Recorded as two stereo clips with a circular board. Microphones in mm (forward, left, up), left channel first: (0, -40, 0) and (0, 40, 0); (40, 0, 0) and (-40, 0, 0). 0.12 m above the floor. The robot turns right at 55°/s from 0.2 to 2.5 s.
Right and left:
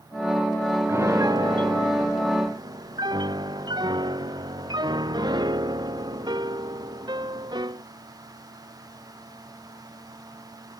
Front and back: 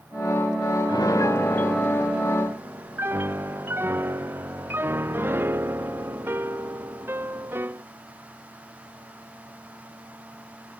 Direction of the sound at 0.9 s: 30° left.